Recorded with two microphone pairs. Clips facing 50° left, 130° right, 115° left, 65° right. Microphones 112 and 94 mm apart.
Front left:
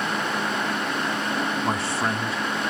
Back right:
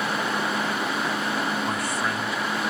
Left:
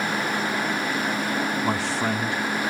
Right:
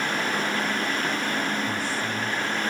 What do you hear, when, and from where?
1.6 s a man speaking: 115° left, 2 m